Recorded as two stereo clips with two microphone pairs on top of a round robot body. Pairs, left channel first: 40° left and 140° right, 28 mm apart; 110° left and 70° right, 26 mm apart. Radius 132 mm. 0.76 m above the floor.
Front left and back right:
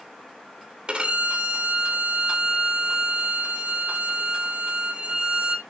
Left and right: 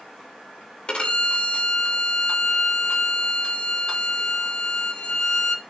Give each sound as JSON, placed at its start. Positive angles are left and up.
{"t": 0.9, "sound": "a violin", "azimuth_deg": 165, "distance_m": 2.5}